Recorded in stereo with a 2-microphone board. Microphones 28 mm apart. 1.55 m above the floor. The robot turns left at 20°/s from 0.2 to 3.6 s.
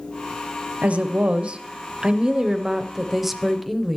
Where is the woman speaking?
125° right, 0.7 m; by 4.0 s straight behind, 0.7 m.